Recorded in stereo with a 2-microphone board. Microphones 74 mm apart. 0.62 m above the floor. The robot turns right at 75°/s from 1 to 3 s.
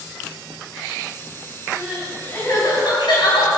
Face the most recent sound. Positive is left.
turn(degrees=75)